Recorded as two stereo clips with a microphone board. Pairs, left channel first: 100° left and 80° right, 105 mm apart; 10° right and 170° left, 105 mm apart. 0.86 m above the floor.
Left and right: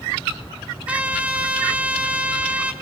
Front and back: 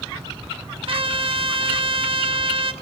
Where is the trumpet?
160° right, 1.1 m.